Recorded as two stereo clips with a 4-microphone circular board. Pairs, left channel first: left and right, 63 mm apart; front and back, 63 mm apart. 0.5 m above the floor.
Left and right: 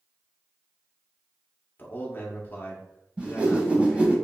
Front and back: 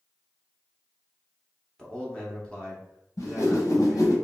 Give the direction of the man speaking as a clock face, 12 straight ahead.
10 o'clock.